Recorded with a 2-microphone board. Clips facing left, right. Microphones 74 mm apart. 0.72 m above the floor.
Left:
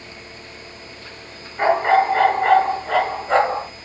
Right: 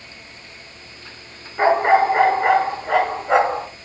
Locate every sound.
1.6 s a dog barking: 15° right (ahead or behind), 4.5 m; by 3.7 s 5° right (ahead or behind), 4 m